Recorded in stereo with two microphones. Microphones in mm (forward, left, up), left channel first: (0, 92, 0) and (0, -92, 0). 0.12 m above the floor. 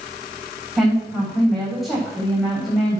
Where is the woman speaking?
Centre (ahead or behind), 8 m.